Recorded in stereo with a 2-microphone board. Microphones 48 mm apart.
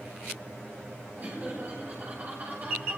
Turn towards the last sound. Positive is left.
turn(degrees=-35)  # may be behind; listen again after turning